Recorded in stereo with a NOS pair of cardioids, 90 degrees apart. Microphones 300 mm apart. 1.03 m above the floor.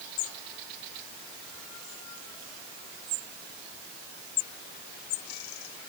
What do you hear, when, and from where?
Only background noise.